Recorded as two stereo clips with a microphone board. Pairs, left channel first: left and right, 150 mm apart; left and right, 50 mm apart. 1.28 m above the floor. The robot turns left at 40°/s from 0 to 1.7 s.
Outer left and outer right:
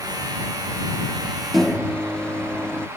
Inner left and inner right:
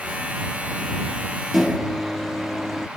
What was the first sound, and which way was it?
A microwave, centre (ahead or behind).